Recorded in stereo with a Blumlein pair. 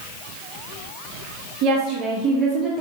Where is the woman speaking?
45° right, 0.7 m; by 2.8 s 5° right, 1.0 m.